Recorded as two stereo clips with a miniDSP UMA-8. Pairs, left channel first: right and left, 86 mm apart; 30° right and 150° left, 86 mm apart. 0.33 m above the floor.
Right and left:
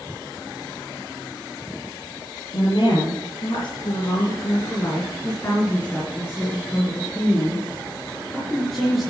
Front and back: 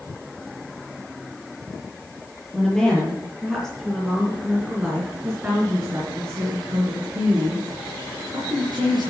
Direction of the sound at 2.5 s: 120° right.